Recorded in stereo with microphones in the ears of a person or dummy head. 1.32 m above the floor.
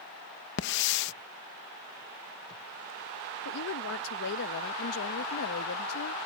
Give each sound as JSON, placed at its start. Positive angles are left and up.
{"t": 0.6, "sound": "a hiss", "side_deg": 65}
{"t": 3.5, "sound": "a woman speaking", "side_deg": 85}